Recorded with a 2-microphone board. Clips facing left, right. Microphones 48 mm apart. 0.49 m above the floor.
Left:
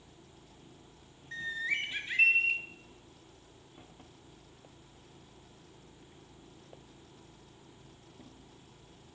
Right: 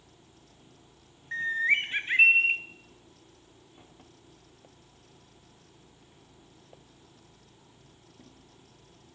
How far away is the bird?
About 0.5 m.